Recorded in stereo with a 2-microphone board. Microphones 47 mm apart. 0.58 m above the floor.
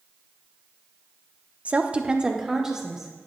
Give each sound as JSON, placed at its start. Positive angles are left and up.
{"t": 1.6, "sound": "a woman speaking", "side_deg": -35, "distance_m": 0.7}